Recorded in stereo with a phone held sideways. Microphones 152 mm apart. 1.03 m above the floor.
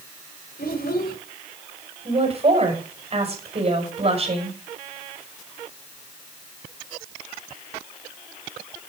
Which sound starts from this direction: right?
A woman speaking, at 2.0 s.